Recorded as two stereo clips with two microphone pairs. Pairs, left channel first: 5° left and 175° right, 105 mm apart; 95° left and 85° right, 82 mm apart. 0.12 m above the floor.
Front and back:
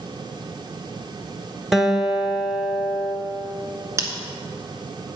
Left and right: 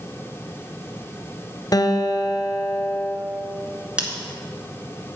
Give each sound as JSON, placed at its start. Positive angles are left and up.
{"t": 1.7, "sound": "a guitar", "azimuth_deg": 100, "distance_m": 1.0}
{"t": 4.0, "sound": "scissors", "azimuth_deg": -145, "distance_m": 1.7}